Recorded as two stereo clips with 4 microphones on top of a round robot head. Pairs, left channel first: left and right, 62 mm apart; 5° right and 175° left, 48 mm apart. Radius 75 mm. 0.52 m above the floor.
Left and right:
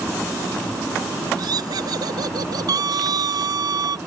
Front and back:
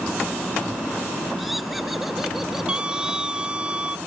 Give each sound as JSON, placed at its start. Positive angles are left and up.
{"t": 1.4, "sound": "laughter", "azimuth_deg": -95}
{"t": 2.7, "sound": "a scream", "azimuth_deg": -110}